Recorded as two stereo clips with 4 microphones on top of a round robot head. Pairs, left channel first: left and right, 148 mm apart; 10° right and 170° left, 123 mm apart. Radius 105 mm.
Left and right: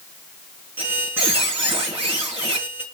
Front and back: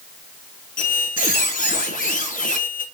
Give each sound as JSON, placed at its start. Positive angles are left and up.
{"t": 0.8, "sound": "a squeak", "azimuth_deg": -10, "distance_m": 4.5}